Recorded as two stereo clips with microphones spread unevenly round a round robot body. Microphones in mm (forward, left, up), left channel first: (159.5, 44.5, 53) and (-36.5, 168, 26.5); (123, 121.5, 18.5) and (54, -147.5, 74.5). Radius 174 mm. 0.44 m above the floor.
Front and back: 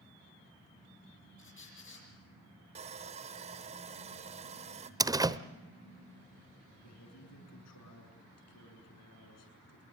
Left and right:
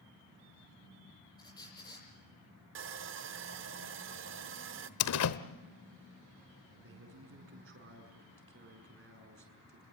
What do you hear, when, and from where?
1.4 s a squeak: straight ahead, 9 m
2.8 s sawing: 155° right, 0.8 m
5.0 s a door slam: 75° left, 1.1 m
6.8 s a man speaking: 60° right, 7 m